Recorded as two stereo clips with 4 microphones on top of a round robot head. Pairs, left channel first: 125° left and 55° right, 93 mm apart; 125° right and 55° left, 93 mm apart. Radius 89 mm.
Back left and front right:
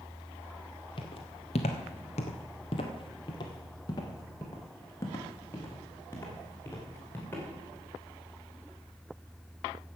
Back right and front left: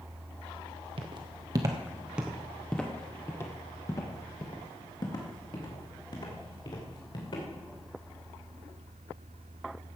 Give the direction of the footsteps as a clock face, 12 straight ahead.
9 o'clock.